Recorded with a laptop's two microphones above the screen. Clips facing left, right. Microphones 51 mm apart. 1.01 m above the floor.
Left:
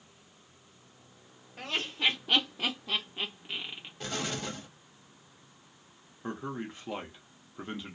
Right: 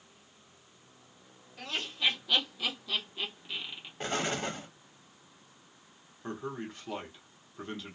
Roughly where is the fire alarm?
I don't hear a fire alarm.